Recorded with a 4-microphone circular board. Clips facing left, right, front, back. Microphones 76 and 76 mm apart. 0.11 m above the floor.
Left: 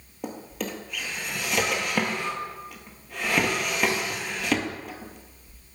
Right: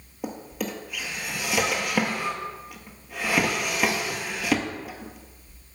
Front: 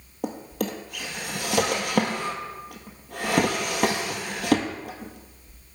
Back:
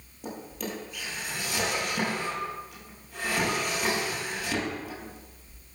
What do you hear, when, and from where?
0.2 s a drawer: 5° right, 1.1 m